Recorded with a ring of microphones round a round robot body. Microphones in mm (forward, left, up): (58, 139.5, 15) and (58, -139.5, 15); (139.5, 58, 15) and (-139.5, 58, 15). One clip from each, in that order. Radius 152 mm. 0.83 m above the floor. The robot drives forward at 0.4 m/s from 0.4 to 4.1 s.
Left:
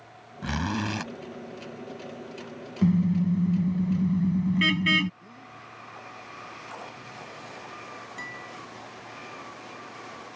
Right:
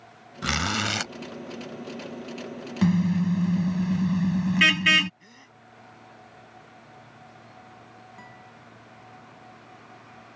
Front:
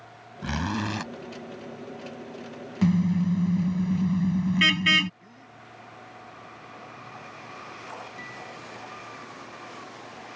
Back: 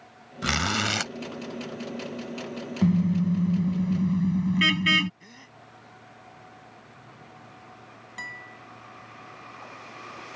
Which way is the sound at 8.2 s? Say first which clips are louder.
Left 11 dB, back 1 dB; 130° left.